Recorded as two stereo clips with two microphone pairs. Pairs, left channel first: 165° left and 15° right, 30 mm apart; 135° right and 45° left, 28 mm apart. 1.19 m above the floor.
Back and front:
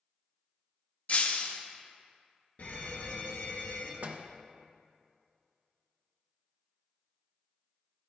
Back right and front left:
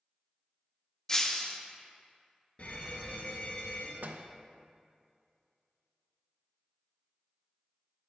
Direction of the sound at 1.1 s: 165° left.